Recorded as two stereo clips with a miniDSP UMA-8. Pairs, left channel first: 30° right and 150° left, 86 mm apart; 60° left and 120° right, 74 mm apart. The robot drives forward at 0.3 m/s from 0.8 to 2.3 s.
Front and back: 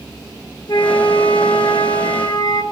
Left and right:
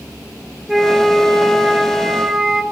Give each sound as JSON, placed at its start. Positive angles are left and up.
{"t": 0.7, "sound": "a flute", "azimuth_deg": -30, "distance_m": 3.5}